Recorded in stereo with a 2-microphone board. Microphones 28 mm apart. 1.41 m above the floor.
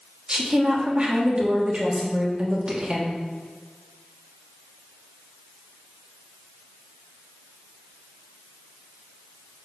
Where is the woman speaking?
40° right (ahead or behind), 2.5 m.